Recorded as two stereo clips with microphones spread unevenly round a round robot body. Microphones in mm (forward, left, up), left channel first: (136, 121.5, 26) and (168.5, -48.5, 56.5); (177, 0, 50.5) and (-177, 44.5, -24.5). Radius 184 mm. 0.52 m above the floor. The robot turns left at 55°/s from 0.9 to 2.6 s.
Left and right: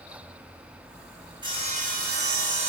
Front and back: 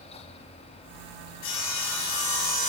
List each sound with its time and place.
1.4 s sawing: 15° right, 9 m; by 2.7 s 80° right, 9 m